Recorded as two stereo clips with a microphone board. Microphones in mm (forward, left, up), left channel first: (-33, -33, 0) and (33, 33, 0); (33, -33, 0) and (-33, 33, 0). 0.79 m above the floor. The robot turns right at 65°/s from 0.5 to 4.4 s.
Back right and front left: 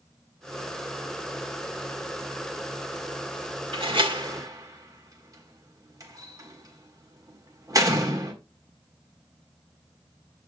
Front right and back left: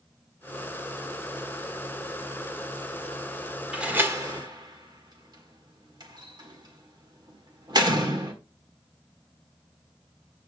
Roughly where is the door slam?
Ahead left.